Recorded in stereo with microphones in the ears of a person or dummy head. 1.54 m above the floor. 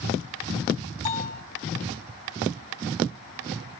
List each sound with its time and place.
1.1 s a bell: 35° left (ahead or behind), 1.3 m